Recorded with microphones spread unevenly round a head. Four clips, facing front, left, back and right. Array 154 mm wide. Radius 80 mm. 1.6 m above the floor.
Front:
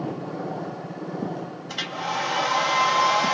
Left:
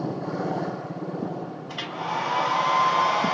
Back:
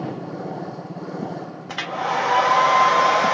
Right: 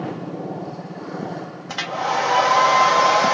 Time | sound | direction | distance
1.7 | a hair dryer | 125° right | 0.6 m